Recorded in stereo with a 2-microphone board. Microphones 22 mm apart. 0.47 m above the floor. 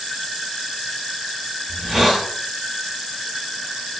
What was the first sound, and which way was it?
A hiss, 40° right (ahead or behind).